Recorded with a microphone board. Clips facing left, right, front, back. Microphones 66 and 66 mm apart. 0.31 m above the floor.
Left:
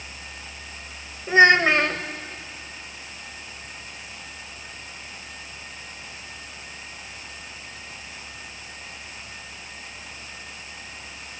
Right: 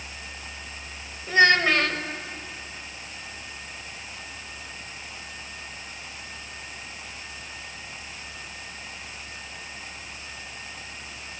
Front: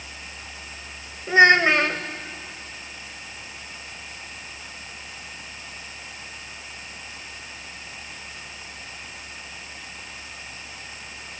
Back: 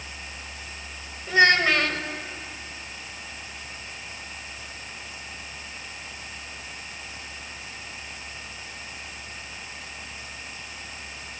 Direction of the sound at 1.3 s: 45° left.